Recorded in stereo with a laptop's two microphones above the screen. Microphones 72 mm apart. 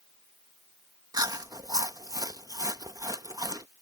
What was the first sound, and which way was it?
Chewing, 60° right (ahead or behind).